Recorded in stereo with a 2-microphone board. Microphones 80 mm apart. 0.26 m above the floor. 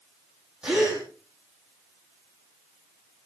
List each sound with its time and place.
0.6 s a gasp: 10° right (ahead or behind), 5.5 m